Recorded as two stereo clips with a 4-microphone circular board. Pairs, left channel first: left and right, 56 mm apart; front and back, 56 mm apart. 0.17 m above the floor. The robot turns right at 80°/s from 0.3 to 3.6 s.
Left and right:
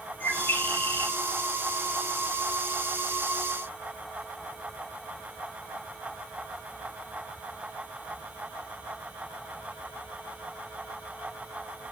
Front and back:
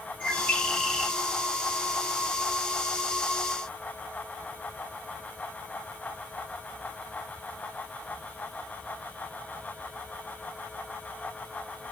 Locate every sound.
0.2 s a bird: 50° left, 1.4 m; by 1.1 s 115° left, 1.4 m